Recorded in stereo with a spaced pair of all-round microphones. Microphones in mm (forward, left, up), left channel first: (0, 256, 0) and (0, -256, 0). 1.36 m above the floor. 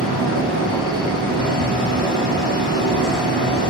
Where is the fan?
45° right (ahead or behind), 2 m.